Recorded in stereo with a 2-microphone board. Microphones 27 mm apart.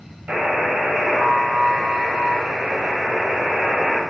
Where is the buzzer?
65° right (ahead or behind), 1.4 m.